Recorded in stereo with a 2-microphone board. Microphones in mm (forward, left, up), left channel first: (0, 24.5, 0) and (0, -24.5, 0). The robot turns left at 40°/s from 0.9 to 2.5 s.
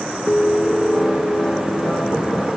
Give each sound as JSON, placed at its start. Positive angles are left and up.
{"t": 0.3, "sound": "a piano", "azimuth_deg": 140, "distance_m": 1.1}